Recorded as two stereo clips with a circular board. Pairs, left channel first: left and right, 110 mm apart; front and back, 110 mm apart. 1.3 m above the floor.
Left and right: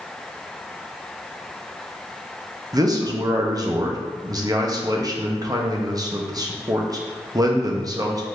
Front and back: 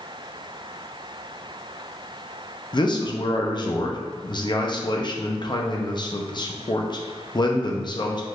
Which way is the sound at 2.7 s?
40° right.